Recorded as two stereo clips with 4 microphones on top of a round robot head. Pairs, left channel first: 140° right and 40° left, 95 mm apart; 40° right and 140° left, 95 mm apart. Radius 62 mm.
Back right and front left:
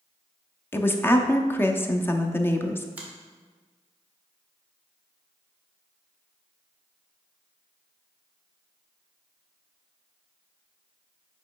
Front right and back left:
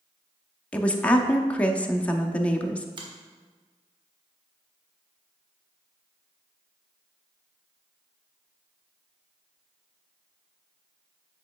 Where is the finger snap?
115° left, 1.7 m.